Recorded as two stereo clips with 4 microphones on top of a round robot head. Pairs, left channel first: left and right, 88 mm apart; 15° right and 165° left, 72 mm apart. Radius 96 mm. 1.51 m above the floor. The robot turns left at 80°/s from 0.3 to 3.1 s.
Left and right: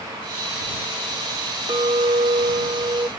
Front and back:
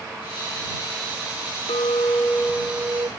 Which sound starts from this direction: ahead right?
A clink, at 1.7 s.